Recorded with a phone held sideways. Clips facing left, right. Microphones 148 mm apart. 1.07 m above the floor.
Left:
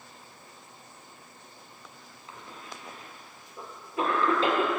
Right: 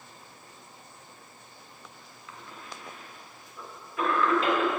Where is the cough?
30° left (ahead or behind), 1.5 m.